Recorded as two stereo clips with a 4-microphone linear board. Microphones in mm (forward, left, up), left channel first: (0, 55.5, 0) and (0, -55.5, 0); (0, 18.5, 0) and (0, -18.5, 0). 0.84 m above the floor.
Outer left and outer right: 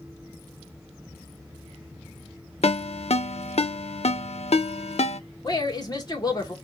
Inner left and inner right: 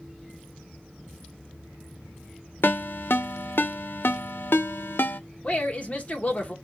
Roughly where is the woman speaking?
Left.